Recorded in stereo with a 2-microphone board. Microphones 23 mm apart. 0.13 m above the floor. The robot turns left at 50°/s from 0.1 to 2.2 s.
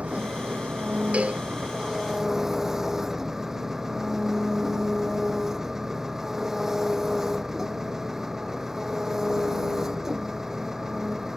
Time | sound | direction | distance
0.0 | an engine running | 60° right | ?
1.1 | a cowbell | 60° right (ahead or behind) | ?